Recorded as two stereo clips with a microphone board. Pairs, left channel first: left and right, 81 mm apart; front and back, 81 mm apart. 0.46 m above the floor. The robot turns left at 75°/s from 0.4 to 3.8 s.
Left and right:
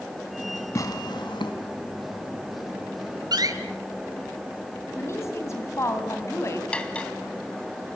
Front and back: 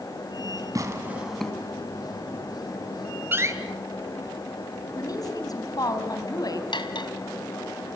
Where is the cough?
No cough in this recording.